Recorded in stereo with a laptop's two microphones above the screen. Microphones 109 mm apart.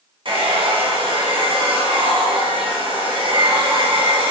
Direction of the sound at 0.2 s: 50° right (ahead or behind).